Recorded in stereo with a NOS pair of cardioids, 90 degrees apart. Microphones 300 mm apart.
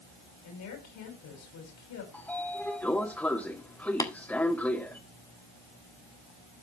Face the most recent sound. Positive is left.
turn(degrees=10)